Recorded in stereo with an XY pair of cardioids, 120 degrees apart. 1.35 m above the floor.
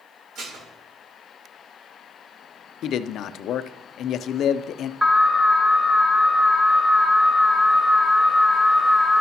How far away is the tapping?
No tapping in this recording.